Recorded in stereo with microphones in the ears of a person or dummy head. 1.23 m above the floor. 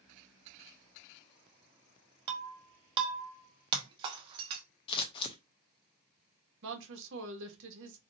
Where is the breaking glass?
35° right (ahead or behind), 0.7 m.